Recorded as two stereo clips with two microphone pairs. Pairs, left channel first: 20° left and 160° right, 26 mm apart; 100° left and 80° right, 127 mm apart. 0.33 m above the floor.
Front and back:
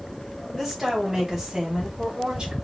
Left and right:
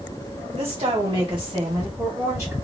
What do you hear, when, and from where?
0.5 s a woman speaking: 75° right, 2 m; by 2.5 s 135° right, 1.6 m